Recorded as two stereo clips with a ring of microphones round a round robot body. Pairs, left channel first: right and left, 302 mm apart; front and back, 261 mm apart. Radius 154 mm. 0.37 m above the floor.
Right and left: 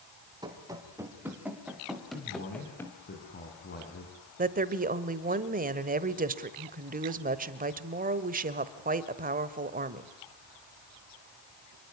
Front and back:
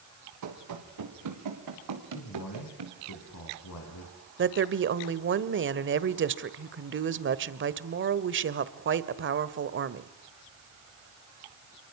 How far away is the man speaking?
About 4 m.